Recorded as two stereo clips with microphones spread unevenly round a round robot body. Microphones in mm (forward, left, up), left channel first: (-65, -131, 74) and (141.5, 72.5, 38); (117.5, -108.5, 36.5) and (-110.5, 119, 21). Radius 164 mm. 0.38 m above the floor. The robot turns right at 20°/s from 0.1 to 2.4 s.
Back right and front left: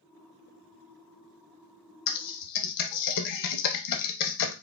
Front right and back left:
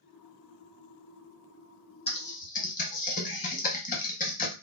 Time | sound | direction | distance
2.1 | typing on a keyboard | 120° right | 0.5 m